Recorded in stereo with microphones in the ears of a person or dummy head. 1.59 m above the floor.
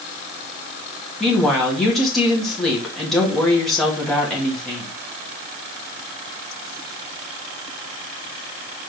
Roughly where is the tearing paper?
No tearing paper in this recording.